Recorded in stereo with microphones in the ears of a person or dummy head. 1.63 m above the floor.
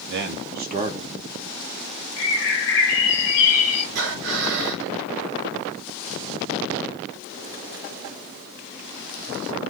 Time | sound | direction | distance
0.1 | a man speaking | 65° right (ahead or behind) | 0.9 m
2.2 | a bird | 70° left (ahead or behind) | 0.8 m
4.0 | breathing | 60° right (ahead or behind) | 1.3 m